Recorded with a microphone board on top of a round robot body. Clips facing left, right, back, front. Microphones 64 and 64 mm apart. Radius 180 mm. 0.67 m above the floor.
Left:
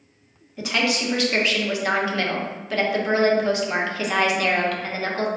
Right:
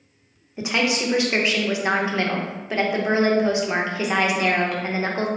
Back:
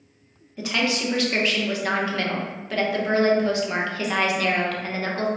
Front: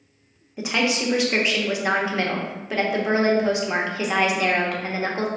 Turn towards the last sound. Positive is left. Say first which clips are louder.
# right 1 dB, front 1 dB
turn(degrees=-50)